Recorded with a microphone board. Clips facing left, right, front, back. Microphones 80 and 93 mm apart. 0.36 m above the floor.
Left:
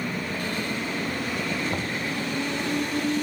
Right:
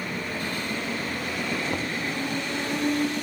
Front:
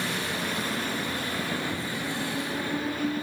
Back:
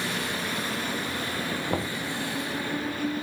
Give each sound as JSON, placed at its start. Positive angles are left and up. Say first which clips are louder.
{"t": 1.7, "sound": "knocking", "louder": "even, back 3 dB", "azimuth_deg": 170}